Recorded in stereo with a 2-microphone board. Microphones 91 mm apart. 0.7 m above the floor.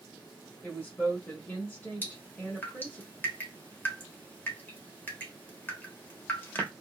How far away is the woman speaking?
About 1.1 m.